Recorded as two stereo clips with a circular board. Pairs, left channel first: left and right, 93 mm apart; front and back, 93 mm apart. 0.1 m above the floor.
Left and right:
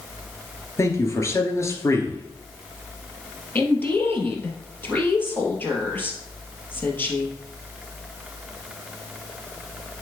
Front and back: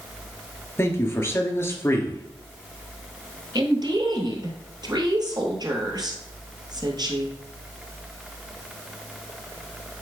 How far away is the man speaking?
About 1.9 m.